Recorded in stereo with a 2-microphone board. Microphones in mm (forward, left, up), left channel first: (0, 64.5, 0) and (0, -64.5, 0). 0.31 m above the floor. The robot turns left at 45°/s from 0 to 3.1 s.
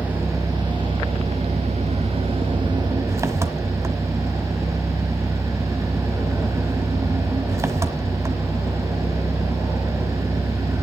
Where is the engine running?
15° right, 1.1 m; by 10.8 s 155° right, 1.1 m.